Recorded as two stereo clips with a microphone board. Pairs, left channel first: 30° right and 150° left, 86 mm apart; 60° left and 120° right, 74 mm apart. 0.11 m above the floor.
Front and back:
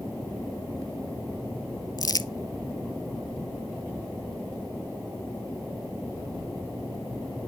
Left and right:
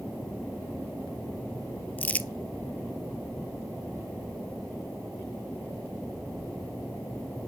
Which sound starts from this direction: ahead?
Crumpling, at 2.0 s.